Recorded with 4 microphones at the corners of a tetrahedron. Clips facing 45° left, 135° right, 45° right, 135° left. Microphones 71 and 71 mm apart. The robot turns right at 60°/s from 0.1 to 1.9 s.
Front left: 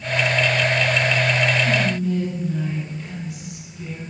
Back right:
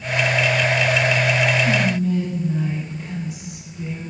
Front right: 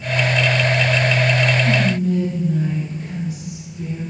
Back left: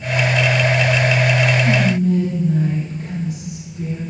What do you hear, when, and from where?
1.6 s whispering: 155° left, 3.5 m; by 4.0 s 170° left, 3.5 m